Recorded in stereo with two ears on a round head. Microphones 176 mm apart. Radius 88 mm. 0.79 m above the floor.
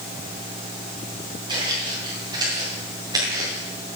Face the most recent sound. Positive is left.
turn(degrees=-20)  # may be behind; listen again after turning